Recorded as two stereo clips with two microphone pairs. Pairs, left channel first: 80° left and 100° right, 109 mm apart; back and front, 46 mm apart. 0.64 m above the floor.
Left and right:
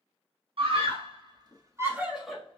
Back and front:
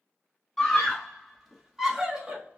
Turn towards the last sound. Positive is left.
turn(degrees=15)